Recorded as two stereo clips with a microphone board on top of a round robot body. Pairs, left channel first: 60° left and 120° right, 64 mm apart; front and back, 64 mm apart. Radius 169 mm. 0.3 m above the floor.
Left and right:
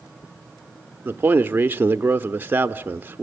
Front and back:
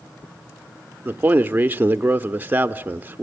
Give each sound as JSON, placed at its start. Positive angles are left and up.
{"t": 1.1, "sound": "a man speaking", "azimuth_deg": -145, "distance_m": 1.0}